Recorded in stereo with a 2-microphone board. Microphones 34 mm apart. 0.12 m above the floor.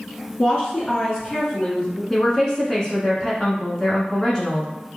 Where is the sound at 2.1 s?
15° left (ahead or behind), 1.1 m.